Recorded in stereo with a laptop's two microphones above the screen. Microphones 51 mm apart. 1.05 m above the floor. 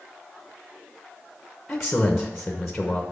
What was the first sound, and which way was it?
A man speaking, 5° left (ahead or behind).